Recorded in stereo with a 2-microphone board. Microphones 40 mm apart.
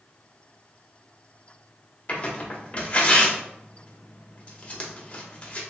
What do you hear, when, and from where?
2.1 s tearing paper: 30° left (ahead or behind), 0.7 m